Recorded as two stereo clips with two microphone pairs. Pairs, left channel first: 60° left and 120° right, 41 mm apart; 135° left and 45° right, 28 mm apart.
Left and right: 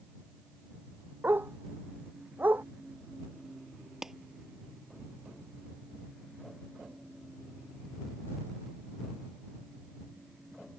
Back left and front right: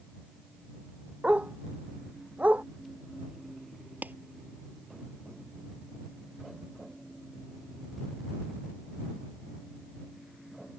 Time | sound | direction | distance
1.2 | a dog barking | 85° right | ?
4.0 | a clap | 40° right | ?